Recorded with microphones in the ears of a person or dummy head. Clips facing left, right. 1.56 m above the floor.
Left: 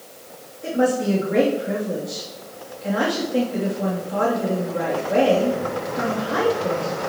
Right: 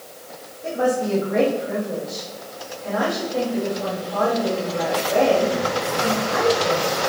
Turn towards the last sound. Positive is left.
turn(degrees=40)  # may be behind; listen again after turning